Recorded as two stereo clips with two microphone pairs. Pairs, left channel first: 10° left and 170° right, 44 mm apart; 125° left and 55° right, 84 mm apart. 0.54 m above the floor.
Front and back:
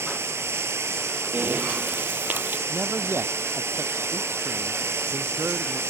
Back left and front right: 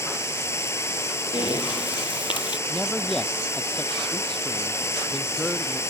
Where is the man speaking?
150° right.